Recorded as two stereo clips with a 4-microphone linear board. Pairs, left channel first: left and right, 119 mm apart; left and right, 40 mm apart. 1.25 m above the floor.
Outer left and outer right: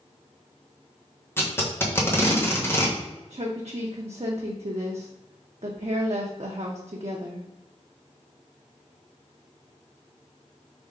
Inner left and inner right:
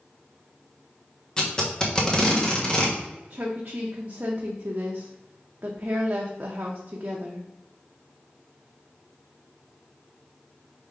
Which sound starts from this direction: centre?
Tape being pulled, at 1.4 s.